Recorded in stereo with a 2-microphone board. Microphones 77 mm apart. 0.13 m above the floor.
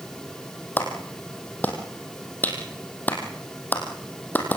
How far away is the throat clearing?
I don't hear throat clearing.